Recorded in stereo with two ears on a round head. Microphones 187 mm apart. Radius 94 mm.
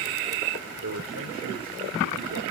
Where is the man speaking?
70° right (ahead or behind), 1.8 m.